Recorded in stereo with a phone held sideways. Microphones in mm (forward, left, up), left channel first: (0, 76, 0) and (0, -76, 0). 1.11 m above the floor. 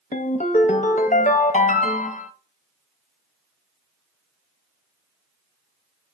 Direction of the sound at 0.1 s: 50° left (ahead or behind).